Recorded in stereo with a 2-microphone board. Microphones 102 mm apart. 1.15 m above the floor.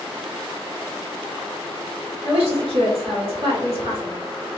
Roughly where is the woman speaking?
Right.